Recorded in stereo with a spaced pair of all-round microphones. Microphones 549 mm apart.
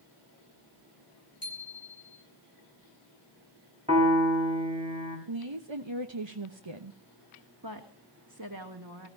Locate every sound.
1.4 s a bicycle bell: 40° left (ahead or behind), 8 m
3.9 s a piano: 10° right (ahead or behind), 5.5 m
5.3 s a woman speaking: 60° right (ahead or behind), 1.3 m
7.6 s a woman speaking: 40° right (ahead or behind), 2.5 m